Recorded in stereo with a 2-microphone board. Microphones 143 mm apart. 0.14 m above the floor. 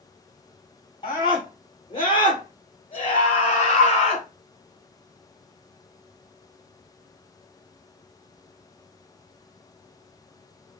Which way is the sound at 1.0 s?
35° left (ahead or behind).